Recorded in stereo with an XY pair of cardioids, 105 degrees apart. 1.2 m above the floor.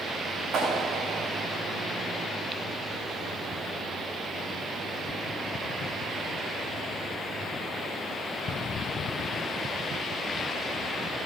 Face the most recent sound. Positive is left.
turn(degrees=-60)